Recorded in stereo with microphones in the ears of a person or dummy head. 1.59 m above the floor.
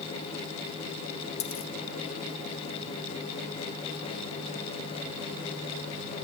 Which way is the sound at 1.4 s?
35° left (ahead or behind).